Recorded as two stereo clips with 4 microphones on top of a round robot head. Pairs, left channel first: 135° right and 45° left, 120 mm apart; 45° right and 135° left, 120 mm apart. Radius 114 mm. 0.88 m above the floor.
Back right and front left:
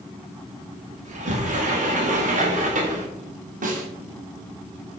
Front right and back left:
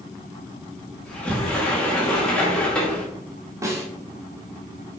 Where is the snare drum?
65° left, 1.6 m.